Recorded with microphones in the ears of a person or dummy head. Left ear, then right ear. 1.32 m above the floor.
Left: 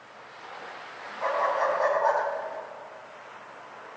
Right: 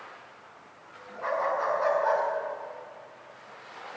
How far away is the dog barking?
About 5 m.